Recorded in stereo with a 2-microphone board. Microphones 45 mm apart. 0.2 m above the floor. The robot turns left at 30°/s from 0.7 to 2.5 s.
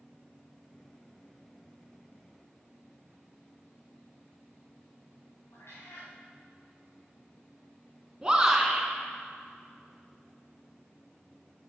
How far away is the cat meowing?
About 3.5 m.